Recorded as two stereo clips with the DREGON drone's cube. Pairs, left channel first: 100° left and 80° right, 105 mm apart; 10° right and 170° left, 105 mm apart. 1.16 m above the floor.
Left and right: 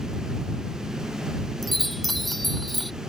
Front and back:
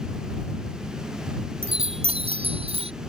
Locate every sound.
1.6 s a chime: 170° right